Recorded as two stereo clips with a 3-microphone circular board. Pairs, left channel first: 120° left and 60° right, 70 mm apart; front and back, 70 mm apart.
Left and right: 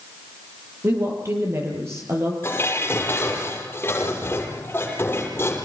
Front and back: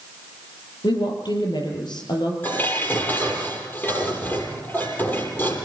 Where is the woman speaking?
10° right, 9 m.